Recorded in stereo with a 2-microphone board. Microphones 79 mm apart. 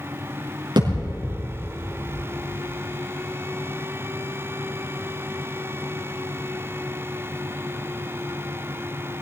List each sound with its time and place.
0.8 s a thud: 75° right (ahead or behind), 5.5 m